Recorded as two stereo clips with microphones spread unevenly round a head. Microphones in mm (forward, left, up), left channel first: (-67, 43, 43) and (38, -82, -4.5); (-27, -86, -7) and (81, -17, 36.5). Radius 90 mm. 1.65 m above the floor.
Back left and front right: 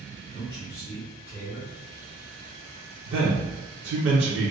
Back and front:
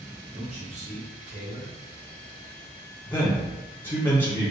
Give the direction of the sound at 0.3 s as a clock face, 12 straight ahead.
10 o'clock.